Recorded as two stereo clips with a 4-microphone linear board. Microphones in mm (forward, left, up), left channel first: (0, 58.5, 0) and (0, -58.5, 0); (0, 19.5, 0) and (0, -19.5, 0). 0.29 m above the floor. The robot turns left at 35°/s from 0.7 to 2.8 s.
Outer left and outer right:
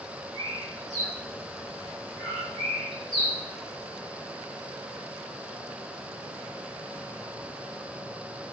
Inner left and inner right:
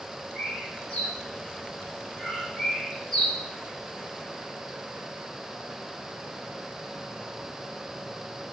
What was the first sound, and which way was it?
A bird, 25° left (ahead or behind).